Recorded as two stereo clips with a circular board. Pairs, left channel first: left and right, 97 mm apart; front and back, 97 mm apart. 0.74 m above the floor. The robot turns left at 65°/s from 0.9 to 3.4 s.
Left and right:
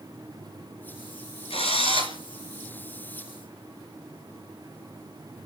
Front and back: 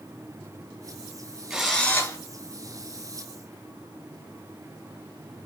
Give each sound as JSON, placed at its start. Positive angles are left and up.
{"t": 1.5, "sound": "a drill", "azimuth_deg": 95, "distance_m": 4.0}